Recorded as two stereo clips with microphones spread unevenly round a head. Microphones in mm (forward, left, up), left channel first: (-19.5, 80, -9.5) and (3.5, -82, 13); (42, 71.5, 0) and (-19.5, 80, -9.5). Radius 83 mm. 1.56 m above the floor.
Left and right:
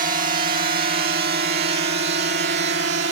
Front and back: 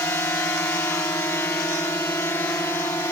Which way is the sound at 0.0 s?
55° right.